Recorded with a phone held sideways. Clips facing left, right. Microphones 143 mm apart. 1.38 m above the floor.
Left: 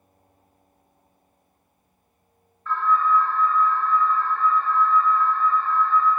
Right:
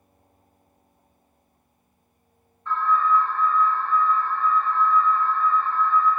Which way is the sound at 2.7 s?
25° right (ahead or behind).